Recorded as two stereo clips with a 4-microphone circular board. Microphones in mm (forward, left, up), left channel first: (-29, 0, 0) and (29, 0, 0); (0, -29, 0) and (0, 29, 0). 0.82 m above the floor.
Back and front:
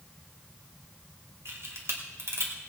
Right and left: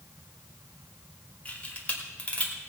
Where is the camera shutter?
30° right, 2.5 m.